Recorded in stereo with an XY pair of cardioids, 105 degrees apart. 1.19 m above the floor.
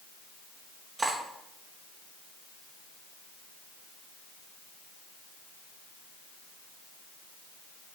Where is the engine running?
No engine running in this recording.